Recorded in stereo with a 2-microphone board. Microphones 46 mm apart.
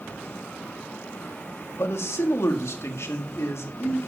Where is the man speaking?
70° left (ahead or behind), 1.8 m.